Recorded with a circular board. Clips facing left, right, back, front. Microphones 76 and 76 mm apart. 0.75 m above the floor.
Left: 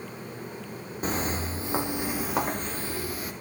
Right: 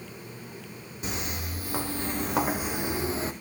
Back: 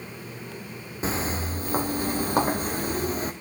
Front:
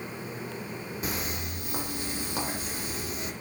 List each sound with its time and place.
1.0 s footsteps: 125° left, 1.4 m; by 3.3 s 145° right, 1.4 m